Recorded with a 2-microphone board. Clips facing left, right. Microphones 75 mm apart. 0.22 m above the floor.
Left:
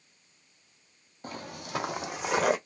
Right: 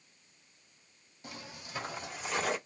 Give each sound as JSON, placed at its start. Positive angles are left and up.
{"t": 1.2, "sound": "footsteps", "side_deg": 45, "distance_m": 0.5}